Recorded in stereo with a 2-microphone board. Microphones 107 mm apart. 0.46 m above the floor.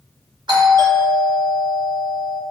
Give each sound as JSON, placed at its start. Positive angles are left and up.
{"t": 0.5, "sound": "a doorbell", "side_deg": -45, "distance_m": 1.9}